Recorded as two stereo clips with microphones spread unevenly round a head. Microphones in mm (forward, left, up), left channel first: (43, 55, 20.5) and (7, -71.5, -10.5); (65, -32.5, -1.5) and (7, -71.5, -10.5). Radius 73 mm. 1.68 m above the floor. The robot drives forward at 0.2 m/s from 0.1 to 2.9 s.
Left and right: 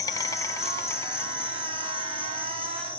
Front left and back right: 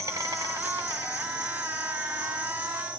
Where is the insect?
145° left, 0.9 m; by 3.0 s 160° left, 1.4 m.